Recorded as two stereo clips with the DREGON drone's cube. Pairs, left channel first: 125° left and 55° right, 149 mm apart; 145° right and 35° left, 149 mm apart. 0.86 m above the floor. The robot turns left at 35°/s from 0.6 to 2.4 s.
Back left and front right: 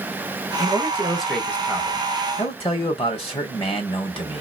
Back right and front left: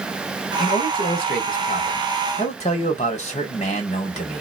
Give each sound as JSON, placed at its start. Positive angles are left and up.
{"t": 0.6, "sound": "a man speaking", "azimuth_deg": -125, "distance_m": 2.0}